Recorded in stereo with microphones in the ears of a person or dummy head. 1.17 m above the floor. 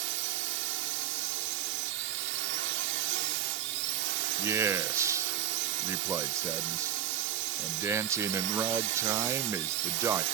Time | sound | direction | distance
0.0 | a drone | 65° right (ahead or behind) | ?
4.4 | a man speaking | 20° right (ahead or behind) | ?